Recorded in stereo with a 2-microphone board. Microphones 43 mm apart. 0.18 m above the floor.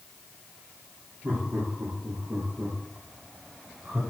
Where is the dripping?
No dripping in this recording.